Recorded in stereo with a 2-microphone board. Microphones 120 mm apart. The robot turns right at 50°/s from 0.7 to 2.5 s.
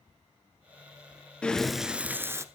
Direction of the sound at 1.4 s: 165° left.